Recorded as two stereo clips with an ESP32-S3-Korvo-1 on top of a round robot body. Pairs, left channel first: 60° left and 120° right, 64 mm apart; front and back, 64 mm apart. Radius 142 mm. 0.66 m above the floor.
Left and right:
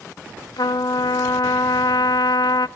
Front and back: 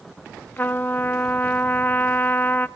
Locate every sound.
0.6 s a trumpet: 65° left, 0.6 m